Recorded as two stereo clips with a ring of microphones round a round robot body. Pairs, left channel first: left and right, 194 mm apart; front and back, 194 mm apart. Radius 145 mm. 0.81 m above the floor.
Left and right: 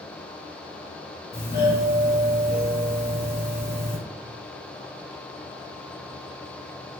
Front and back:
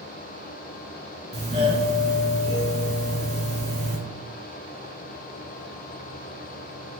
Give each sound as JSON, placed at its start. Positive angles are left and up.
{"t": 1.3, "sound": "a doorbell", "azimuth_deg": 130, "distance_m": 1.4}